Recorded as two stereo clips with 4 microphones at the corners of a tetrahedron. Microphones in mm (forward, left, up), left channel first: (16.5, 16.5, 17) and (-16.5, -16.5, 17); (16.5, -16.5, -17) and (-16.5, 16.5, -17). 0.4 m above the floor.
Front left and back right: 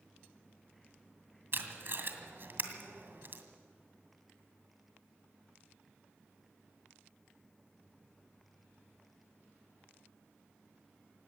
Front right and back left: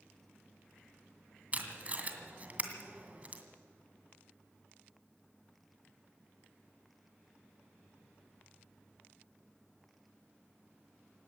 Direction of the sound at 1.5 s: 170° right.